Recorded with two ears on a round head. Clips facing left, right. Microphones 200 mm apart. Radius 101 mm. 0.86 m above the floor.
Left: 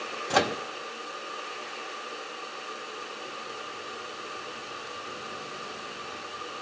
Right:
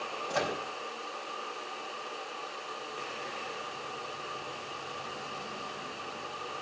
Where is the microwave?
70° left (ahead or behind), 0.9 m.